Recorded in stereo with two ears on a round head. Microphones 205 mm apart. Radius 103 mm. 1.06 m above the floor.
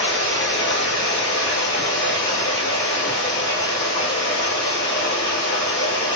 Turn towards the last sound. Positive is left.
turn(degrees=45)  # may be behind; listen again after turning